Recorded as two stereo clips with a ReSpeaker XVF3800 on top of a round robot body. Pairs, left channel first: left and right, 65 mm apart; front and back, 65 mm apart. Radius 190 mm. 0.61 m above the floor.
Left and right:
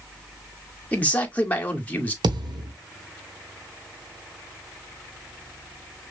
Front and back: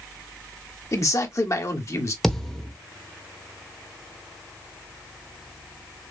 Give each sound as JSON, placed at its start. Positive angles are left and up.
{"t": 0.9, "sound": "a man speaking", "azimuth_deg": 30, "distance_m": 1.9}
{"t": 2.2, "sound": "a thud", "azimuth_deg": -85, "distance_m": 1.1}